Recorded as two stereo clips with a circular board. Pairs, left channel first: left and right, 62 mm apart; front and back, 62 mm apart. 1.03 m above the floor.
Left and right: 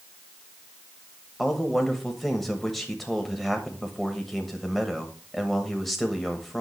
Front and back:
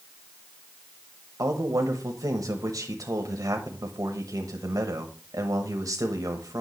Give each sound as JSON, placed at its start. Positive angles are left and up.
{"t": 1.4, "sound": "a man speaking", "azimuth_deg": 180, "distance_m": 0.9}